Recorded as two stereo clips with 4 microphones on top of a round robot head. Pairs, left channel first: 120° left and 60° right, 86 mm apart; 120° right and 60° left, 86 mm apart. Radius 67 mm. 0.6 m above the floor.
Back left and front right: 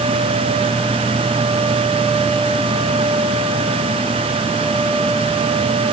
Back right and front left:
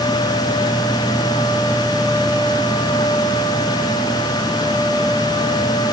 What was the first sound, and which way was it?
Only background noise.